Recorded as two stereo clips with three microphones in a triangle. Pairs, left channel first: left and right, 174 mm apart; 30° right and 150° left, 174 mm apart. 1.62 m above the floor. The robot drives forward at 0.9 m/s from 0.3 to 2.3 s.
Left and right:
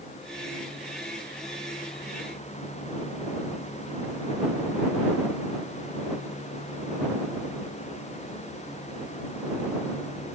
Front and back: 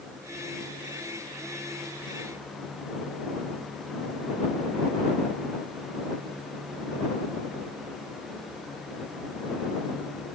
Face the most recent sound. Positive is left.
No sound to turn to.